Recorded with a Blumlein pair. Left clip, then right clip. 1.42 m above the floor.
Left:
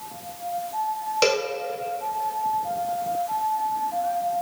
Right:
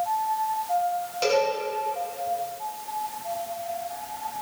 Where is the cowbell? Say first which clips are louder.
Left 1 dB; 30° left, 1.7 m.